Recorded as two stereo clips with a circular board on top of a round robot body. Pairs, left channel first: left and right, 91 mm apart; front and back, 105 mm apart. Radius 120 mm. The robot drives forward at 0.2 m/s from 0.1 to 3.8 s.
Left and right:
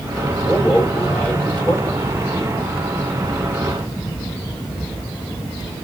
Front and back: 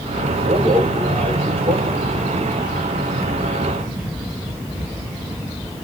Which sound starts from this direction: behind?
A man speaking, at 0.4 s.